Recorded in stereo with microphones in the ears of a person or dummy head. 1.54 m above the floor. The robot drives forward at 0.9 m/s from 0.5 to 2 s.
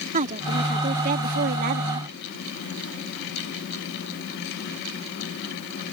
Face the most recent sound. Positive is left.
turn(degrees=-65)  # may be behind; listen again after turning